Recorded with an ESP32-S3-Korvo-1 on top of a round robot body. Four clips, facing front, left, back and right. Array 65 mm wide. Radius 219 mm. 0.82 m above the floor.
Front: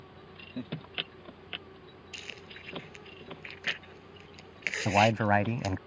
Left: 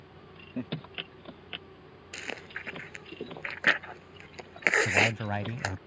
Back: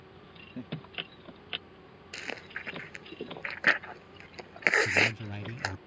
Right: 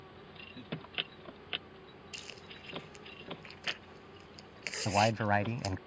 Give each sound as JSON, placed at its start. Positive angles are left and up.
{"t": 0.6, "sound": "laughter", "azimuth_deg": 75}
{"t": 2.1, "sound": "chewing", "azimuth_deg": 135}
{"t": 4.8, "sound": "a man speaking", "azimuth_deg": -15}